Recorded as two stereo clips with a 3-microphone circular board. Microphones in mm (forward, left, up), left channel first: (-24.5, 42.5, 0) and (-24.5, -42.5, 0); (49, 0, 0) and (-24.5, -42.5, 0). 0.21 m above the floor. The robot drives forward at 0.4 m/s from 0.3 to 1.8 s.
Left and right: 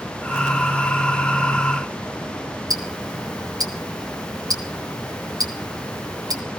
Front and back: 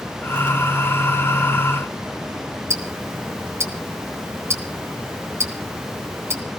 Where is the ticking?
105° right, 2.5 m.